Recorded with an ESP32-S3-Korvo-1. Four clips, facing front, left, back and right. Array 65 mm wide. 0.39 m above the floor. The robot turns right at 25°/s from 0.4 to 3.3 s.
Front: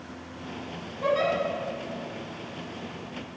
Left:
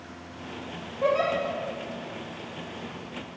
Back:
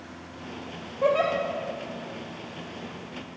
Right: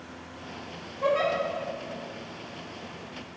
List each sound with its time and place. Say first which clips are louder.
1.0 s a giggle: left 1 dB, back 2 dB; 155° left, 3 m; by 1.3 s 165° left, 3 m